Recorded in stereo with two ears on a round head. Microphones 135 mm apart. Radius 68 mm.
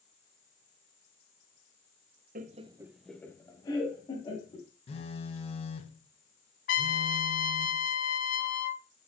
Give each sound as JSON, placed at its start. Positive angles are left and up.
{"t": 2.4, "sound": "laughter", "side_deg": -60, "distance_m": 0.8}
{"t": 4.9, "sound": "a phone buzzing", "side_deg": 40, "distance_m": 1.0}
{"t": 6.7, "sound": "a trumpet", "side_deg": 60, "distance_m": 0.8}